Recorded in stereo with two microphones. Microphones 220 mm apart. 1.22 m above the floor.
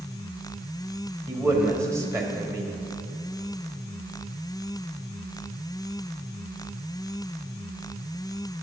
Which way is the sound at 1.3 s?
15° right (ahead or behind).